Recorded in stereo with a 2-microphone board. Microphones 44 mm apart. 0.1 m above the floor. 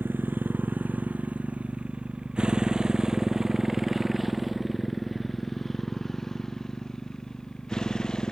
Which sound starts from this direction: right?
A motorcycle, at 0.0 s.